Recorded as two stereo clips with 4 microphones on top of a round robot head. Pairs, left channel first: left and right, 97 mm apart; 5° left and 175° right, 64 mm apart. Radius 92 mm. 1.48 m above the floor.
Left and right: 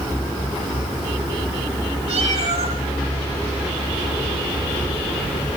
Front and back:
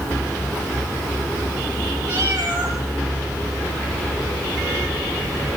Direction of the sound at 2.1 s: 125° right.